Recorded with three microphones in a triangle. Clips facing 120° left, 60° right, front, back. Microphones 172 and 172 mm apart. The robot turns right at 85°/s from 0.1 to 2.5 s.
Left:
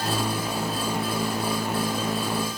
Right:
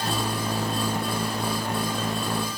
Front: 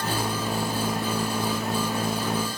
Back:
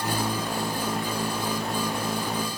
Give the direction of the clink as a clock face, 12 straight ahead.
No clink in this recording.